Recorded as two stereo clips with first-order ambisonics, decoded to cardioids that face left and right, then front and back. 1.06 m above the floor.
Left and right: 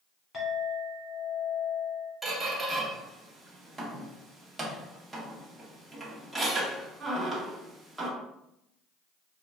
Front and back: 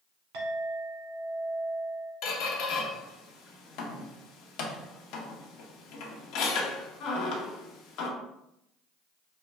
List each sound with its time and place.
0.3 s a clink: 160° left, 1.5 m
2.2 s a squeak: 10° right, 0.8 m